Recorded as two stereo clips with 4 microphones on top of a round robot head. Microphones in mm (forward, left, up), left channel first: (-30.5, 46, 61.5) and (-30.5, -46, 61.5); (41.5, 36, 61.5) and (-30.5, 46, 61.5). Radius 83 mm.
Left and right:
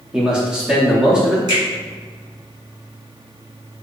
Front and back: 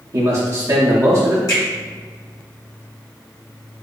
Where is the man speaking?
170° right, 0.8 m.